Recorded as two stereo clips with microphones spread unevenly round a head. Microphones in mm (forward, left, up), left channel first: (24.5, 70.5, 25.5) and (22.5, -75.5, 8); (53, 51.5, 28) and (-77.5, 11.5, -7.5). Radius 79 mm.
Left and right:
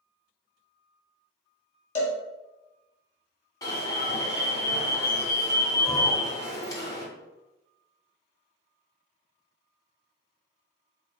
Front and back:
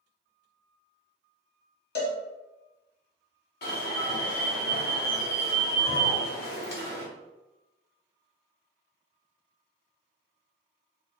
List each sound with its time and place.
1.9 s a cowbell: 40° left, 1.2 m
3.6 s an alarm: 20° left, 1.0 m